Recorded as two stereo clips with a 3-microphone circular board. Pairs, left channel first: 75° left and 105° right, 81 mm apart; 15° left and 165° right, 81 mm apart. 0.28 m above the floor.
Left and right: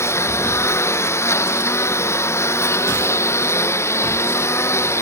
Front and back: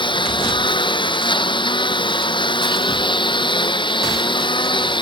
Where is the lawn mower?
20° left.